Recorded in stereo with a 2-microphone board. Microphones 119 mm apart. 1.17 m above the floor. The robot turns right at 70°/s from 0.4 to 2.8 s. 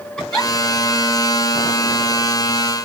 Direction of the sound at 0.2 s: 5° left (ahead or behind).